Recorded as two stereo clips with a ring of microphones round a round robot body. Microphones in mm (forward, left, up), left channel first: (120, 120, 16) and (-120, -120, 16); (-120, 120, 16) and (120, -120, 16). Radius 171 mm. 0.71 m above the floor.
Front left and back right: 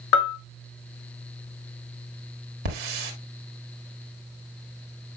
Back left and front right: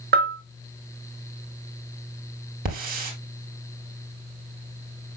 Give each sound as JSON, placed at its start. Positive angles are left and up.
{"t": 0.1, "sound": "a bell", "azimuth_deg": 15, "distance_m": 0.8}
{"t": 2.6, "sound": "a hiss", "azimuth_deg": -110, "distance_m": 2.0}